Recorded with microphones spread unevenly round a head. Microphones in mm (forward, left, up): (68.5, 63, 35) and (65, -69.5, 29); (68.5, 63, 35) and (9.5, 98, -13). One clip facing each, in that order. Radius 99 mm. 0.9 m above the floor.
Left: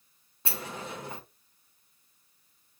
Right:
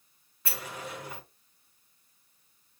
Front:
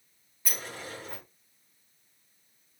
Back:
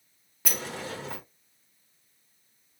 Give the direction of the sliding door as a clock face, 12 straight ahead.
7 o'clock.